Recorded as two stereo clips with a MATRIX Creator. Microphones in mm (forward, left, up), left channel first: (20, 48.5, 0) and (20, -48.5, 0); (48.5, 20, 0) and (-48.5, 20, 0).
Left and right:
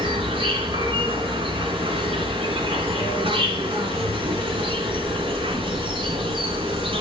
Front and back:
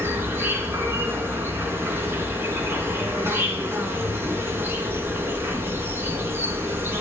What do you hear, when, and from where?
0.0 s an insect: 115° right, 2.5 m